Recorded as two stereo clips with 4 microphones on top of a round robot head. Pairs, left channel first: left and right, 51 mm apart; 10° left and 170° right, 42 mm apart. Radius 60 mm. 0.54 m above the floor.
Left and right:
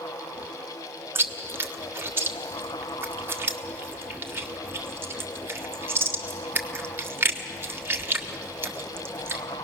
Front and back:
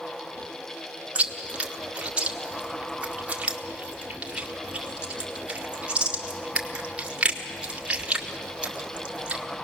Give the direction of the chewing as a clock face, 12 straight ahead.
4 o'clock.